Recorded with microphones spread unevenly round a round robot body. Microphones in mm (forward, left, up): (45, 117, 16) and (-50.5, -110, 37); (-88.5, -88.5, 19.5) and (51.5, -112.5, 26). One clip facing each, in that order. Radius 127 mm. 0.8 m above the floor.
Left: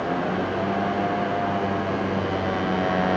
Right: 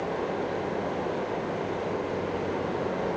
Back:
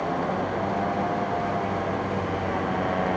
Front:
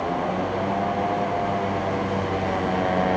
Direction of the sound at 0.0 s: 75° left.